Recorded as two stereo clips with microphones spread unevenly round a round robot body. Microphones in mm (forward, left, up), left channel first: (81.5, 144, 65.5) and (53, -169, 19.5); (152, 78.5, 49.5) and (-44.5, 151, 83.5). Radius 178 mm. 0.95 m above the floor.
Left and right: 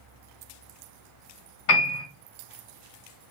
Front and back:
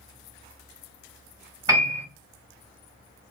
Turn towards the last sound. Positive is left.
turn(degrees=85)